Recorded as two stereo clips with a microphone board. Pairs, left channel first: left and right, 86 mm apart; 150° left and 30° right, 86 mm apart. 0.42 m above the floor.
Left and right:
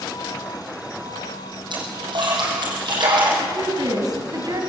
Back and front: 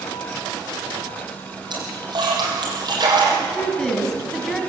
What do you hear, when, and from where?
1.7 s a splash: 65° right, 7 m
3.4 s a woman speaking: 125° right, 3.5 m